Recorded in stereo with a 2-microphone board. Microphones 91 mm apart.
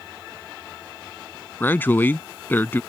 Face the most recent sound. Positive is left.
turn(degrees=20)  # may be behind; listen again after turning